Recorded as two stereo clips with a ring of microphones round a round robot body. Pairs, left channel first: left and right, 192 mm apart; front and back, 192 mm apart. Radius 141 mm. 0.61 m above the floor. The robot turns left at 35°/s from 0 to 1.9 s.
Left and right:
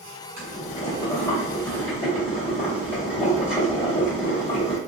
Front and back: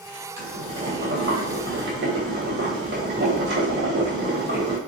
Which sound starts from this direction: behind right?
Boiling, at 0.4 s.